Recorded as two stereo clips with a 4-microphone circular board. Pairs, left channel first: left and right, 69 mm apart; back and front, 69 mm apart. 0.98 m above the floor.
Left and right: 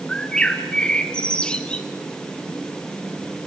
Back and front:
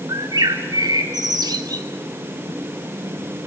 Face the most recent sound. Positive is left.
turn(degrees=15)